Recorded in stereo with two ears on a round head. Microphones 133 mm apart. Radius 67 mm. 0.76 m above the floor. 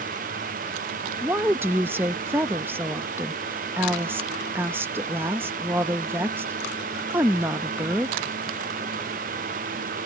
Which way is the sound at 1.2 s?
15° right (ahead or behind).